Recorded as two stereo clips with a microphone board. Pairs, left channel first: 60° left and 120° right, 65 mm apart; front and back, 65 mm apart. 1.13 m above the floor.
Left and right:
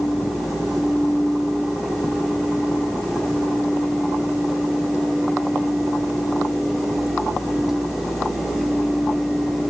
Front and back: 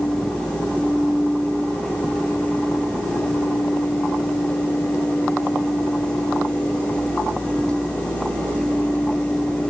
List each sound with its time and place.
Only background noise.